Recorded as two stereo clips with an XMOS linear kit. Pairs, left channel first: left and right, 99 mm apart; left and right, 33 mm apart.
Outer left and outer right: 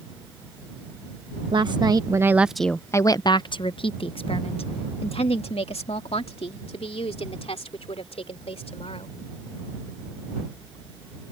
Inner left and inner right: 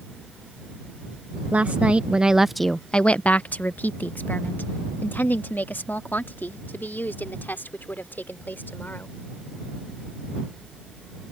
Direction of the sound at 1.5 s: 55° right (ahead or behind).